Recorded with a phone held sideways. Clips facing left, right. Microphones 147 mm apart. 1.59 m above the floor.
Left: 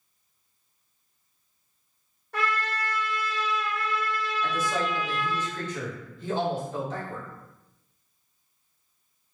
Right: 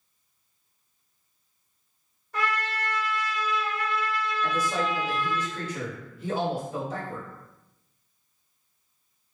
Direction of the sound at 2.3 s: 65° left (ahead or behind).